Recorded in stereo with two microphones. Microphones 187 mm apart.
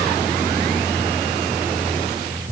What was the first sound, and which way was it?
Only background noise.